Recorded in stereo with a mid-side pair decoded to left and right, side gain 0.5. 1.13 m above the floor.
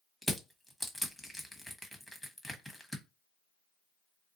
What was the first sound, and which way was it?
Crushing, 5° left.